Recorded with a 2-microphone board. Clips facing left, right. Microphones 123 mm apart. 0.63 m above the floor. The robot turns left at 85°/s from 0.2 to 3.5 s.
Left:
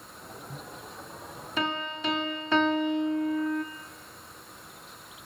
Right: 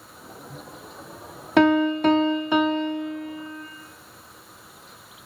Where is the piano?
80° right, 0.6 m; by 3.6 s 115° left, 0.6 m.